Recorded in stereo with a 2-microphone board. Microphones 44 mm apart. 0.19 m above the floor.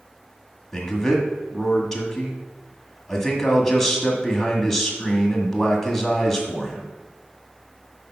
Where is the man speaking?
5° left (ahead or behind), 1.4 m.